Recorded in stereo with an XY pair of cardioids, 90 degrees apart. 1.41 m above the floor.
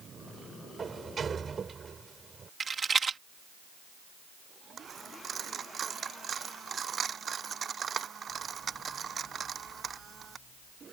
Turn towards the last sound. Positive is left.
turn(degrees=-50)